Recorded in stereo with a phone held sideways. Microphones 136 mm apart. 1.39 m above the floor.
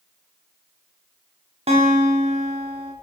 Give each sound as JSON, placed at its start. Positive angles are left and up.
{"t": 1.7, "sound": "a guitar", "side_deg": -45, "distance_m": 1.2}